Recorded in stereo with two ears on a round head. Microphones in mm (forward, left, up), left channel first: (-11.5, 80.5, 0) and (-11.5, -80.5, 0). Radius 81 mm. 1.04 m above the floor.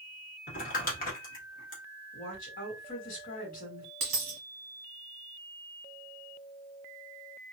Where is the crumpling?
55° left (ahead or behind), 1.1 m.